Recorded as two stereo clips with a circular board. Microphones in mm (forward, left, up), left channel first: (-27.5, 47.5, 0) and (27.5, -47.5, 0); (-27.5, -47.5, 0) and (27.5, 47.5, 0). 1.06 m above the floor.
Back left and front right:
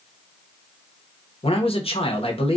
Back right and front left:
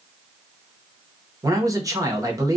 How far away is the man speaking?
About 0.8 m.